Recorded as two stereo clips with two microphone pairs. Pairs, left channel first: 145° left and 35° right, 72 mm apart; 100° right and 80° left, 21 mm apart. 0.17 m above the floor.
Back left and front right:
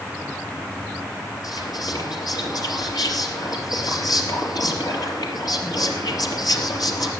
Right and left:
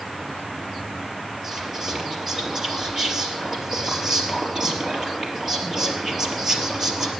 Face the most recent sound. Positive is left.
turn(degrees=145)